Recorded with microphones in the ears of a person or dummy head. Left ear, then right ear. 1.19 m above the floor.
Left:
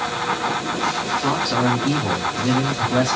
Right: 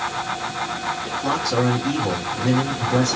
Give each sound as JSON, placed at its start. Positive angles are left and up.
{"t": 1.2, "sound": "a man speaking", "side_deg": 15, "distance_m": 1.8}